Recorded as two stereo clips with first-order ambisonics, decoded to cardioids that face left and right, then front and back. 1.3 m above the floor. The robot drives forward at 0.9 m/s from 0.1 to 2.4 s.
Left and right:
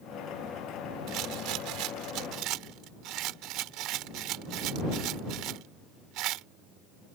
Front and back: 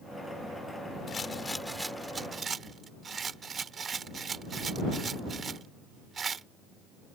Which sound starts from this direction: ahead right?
A rattle, at 1.1 s.